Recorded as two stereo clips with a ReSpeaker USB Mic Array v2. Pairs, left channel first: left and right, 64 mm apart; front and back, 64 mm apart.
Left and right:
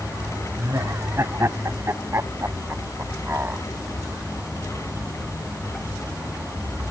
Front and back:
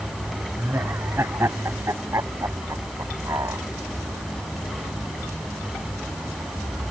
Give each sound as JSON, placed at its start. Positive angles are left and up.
{"t": 0.6, "sound": "laughter", "azimuth_deg": -130}